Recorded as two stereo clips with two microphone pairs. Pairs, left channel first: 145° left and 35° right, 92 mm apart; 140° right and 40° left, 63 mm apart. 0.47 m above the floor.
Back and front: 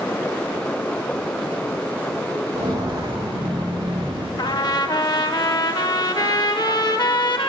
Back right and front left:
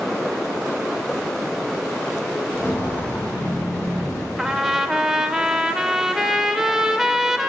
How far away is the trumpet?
About 0.7 m.